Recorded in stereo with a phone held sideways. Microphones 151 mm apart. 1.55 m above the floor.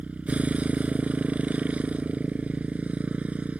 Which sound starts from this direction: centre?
A motorcycle, at 0.0 s.